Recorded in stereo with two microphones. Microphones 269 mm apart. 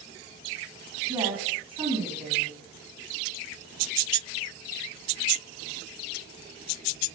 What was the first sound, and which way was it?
A woman speaking, 20° right (ahead or behind).